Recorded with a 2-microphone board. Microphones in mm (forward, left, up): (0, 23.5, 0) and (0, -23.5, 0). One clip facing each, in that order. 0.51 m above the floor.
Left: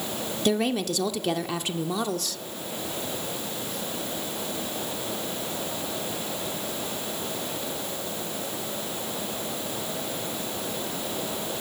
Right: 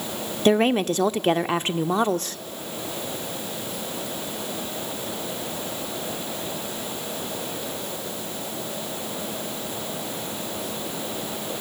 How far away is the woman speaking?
About 1.0 m.